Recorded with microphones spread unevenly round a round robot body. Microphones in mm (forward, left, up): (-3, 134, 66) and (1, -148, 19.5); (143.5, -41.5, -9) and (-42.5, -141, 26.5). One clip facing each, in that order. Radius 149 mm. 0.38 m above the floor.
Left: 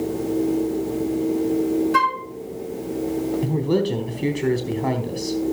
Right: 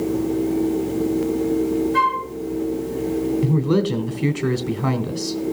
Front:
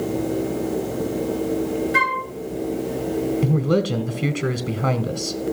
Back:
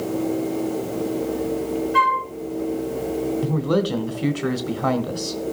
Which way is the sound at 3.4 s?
30° right.